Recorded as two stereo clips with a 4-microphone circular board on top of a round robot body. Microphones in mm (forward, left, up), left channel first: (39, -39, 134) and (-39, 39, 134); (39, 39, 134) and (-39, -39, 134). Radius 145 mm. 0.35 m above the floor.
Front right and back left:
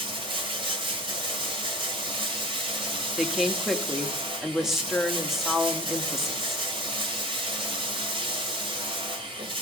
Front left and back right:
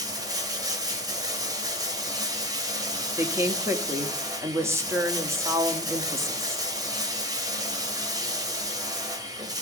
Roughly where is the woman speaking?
Behind right.